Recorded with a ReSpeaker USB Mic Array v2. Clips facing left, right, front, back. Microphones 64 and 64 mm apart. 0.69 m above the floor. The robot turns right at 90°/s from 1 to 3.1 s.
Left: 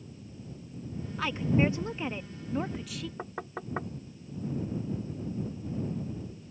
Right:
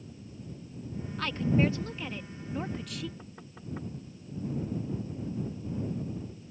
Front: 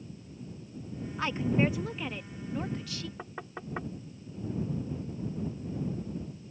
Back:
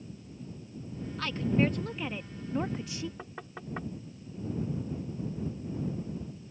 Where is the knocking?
75° left.